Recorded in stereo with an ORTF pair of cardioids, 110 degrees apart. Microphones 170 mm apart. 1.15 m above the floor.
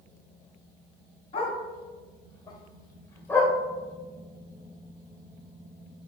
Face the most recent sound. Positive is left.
turn(degrees=10)